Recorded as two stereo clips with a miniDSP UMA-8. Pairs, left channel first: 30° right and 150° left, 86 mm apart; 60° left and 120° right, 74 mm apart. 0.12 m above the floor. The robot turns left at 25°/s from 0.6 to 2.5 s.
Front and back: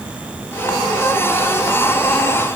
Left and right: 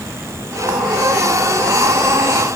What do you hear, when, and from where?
Only background noise.